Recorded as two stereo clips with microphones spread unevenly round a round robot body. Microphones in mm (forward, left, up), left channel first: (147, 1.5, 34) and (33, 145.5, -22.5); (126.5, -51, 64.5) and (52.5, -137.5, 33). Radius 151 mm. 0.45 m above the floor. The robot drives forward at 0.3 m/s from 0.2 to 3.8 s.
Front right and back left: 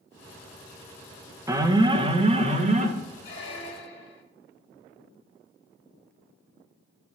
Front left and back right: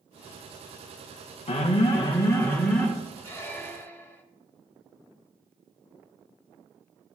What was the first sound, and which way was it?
An alarm, 85° left.